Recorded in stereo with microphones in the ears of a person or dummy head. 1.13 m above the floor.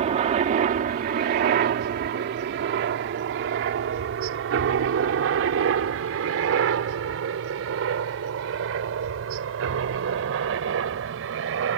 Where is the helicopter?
40° right (ahead or behind); by 11.8 s 70° right (ahead or behind).